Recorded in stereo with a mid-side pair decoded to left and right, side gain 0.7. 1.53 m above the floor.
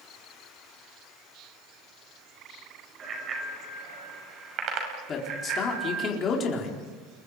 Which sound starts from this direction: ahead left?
A man speaking, at 5.1 s.